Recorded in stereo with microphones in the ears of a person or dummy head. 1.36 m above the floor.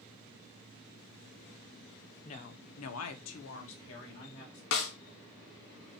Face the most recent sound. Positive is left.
turn(degrees=65)  # may be behind; listen again after turning